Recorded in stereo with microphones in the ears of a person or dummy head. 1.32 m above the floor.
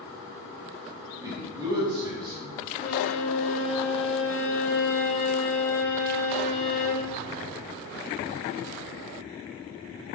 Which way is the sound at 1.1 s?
25° right (ahead or behind).